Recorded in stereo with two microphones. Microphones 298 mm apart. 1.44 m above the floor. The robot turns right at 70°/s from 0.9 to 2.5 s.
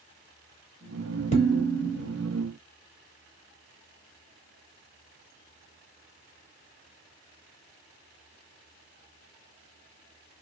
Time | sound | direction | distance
1.3 | dishes clattering | 25° left | 1.5 m